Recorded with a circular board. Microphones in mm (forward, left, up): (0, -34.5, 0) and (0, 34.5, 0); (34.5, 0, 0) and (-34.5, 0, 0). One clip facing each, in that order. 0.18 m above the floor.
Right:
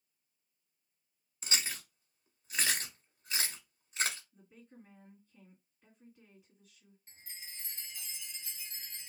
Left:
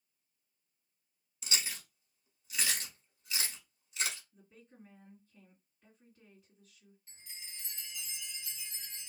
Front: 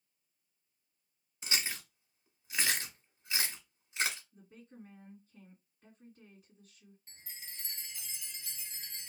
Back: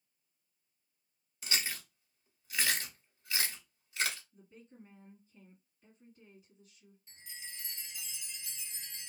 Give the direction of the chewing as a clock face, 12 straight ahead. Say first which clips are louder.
Right 2 dB, even; 2 o'clock.